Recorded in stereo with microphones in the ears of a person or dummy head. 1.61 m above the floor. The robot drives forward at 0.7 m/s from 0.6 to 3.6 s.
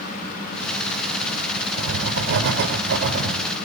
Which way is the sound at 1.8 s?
75° right (ahead or behind).